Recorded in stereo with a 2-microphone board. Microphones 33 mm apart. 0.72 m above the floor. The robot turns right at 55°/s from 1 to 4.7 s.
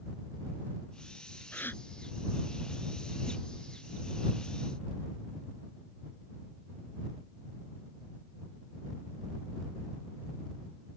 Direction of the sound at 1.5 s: 85° left.